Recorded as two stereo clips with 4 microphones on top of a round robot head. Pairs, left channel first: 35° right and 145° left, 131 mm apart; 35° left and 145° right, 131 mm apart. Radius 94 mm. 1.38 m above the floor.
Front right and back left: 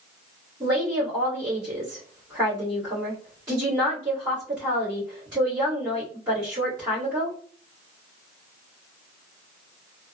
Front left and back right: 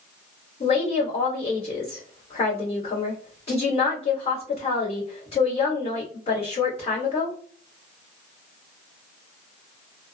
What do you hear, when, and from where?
0.6 s a woman speaking: 80° left, 1.9 m